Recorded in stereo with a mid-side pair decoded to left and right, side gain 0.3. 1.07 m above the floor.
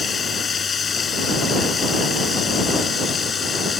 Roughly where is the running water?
Ahead left.